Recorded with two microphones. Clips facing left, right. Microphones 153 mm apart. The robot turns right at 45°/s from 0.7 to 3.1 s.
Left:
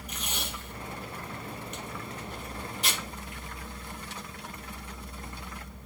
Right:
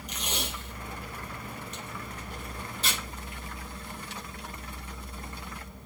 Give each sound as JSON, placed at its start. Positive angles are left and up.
{"t": 0.1, "sound": "tape being pulled", "side_deg": -80, "distance_m": 4.0}